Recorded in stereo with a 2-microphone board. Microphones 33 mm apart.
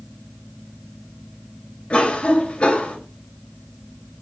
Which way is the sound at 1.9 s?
35° left (ahead or behind).